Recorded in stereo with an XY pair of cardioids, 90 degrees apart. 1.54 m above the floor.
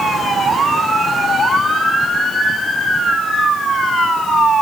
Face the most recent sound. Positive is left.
No sound to turn to.